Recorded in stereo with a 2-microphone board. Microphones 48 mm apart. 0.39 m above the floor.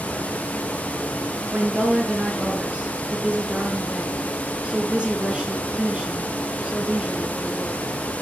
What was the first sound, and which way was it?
A woman speaking, 25° right (ahead or behind).